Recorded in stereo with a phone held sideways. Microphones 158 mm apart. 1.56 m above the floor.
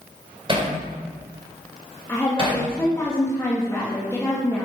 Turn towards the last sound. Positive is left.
turn(degrees=15)  # may be behind; listen again after turning